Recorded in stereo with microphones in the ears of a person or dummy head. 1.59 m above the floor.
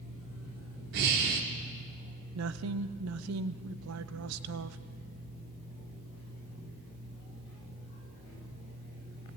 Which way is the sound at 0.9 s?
45° right (ahead or behind).